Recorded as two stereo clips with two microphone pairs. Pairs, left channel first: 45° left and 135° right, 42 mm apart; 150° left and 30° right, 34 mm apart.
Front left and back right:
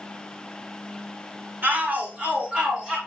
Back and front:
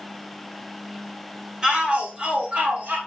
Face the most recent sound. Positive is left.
turn(degrees=-60)